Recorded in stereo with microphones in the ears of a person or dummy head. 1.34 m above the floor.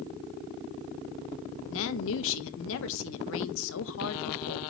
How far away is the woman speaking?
About 1.4 m.